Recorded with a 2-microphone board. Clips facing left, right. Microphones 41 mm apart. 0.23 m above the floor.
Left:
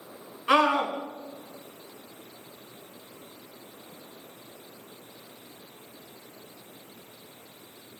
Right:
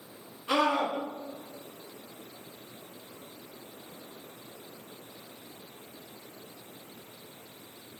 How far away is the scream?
About 2 m.